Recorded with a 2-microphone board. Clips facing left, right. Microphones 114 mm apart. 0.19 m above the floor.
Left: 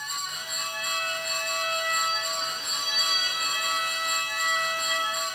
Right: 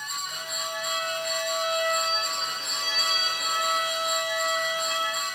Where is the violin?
35° right (ahead or behind), 2 m.